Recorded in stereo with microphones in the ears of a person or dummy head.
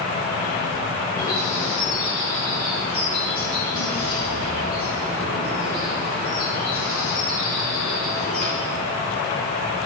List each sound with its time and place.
1.2 s a bird: 45° left (ahead or behind), 1.6 m